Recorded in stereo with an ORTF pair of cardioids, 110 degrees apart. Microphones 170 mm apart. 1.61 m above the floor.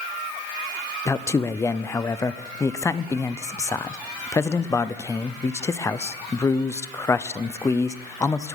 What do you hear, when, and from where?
1.1 s a man speaking: 15° left, 0.7 m